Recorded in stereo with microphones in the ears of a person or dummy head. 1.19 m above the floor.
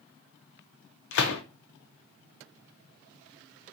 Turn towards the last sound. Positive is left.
turn(degrees=60)  # may be behind; listen again after turning